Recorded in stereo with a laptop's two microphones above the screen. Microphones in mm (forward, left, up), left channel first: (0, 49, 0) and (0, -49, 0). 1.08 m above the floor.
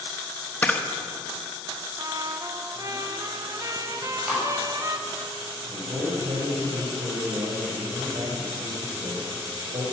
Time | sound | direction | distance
0.6 | a camera shutter | 15° left (ahead or behind) | 0.8 m
2.0 | a trumpet | 35° right (ahead or behind) | 1.0 m
4.0 | chewing | 5° right (ahead or behind) | 6.5 m
5.7 | a man speaking | 65° right (ahead or behind) | 4.5 m